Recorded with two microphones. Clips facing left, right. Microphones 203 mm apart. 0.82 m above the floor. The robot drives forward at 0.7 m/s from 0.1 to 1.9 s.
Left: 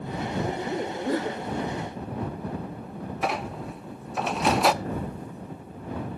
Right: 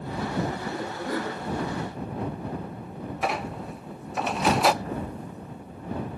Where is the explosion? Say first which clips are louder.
Left 1 dB; 30° left (ahead or behind), 3.5 m.